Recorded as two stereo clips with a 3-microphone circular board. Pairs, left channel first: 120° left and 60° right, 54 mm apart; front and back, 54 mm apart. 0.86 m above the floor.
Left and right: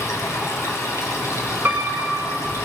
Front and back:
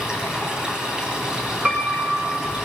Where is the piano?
115° right, 1.7 m.